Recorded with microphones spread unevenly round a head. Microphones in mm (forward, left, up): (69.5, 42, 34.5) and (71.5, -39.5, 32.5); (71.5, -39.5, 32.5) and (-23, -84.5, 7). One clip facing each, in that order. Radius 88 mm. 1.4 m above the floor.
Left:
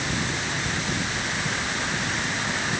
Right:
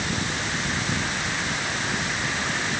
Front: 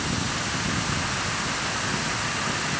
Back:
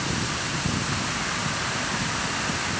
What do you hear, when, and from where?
Only background noise.